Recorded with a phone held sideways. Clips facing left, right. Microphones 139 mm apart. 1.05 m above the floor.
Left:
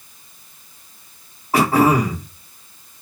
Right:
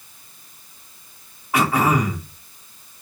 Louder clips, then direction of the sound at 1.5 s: Left 4 dB; 40° left (ahead or behind).